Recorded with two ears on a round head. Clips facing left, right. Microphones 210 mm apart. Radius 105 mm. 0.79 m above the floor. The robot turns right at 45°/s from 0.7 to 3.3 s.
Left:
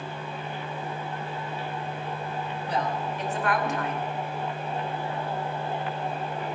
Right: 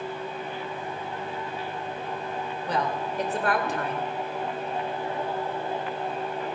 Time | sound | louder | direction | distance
2.7 | a woman speaking | right 1 dB | 60° right (ahead or behind) | 3 m